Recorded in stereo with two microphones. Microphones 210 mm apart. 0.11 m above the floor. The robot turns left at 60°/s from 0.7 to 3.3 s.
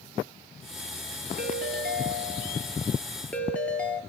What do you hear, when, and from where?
1.4 s a ringtone: 75° right, 1.1 m; by 4.0 s 170° left, 1.1 m